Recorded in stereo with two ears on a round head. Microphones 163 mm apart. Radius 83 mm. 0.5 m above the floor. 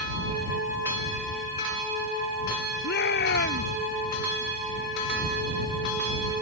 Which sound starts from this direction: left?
A shout, at 2.8 s.